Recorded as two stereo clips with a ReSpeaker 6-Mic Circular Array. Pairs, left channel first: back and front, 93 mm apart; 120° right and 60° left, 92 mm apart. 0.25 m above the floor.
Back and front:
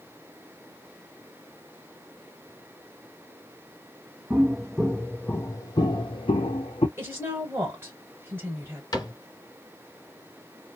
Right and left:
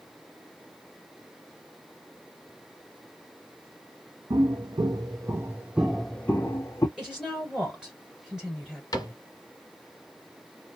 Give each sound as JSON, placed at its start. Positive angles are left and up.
{"t": 4.3, "sound": "footsteps", "azimuth_deg": 85, "distance_m": 0.9}
{"t": 7.0, "sound": "a woman speaking", "azimuth_deg": -10, "distance_m": 1.0}
{"t": 8.9, "sound": "a cupboard door", "azimuth_deg": -150, "distance_m": 1.3}